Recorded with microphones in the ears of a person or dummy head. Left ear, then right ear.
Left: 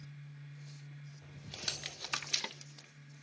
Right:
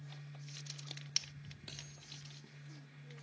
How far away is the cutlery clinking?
About 1.1 m.